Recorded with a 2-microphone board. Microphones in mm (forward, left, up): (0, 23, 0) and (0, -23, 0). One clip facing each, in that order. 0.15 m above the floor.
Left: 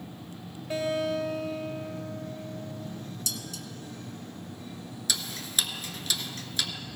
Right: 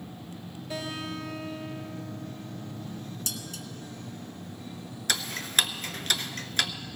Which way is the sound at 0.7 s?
35° left (ahead or behind).